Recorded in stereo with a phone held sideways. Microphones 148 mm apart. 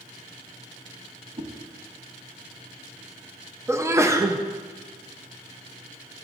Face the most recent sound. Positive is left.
turn(degrees=-20)  # may be behind; listen again after turning